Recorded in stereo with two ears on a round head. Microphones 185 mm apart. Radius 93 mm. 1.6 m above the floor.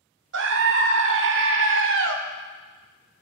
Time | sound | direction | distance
0.3 | a scream | 65° right (ahead or behind) | 0.8 m